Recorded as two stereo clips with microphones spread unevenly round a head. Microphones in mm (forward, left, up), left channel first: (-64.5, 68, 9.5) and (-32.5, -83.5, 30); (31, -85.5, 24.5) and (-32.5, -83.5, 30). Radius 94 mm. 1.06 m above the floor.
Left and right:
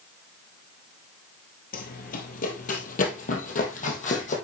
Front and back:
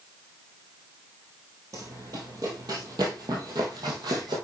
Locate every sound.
1.7 s running footsteps: 125° left, 1.8 m; by 4.3 s 140° left, 3 m